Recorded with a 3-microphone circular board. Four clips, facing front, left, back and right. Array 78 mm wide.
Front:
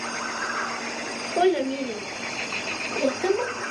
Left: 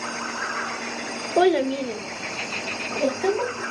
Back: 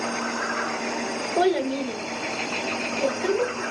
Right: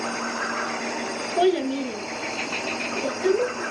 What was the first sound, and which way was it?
A child speaking, 100° left.